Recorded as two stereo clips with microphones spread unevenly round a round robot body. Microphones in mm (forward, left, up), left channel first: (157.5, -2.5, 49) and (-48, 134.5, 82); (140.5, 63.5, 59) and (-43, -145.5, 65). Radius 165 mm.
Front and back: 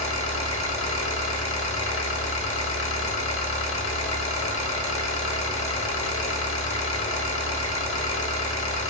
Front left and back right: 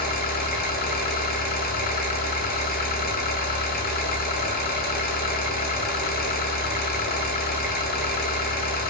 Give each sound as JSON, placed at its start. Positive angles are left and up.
{"t": 0.0, "sound": "an engine running", "azimuth_deg": -10, "distance_m": 0.8}